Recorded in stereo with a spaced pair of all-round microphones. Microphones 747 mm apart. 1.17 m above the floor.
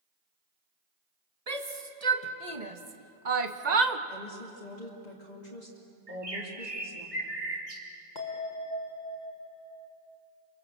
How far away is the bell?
About 3 m.